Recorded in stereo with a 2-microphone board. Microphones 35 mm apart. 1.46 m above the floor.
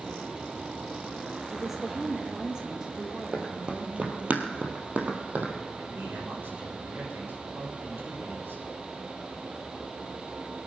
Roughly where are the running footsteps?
Right.